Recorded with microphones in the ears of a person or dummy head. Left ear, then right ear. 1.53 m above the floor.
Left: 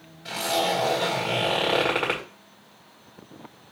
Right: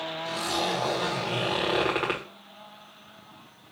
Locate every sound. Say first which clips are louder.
0.2 s a zipper: left 5 dB; 5° left (ahead or behind), 1.5 m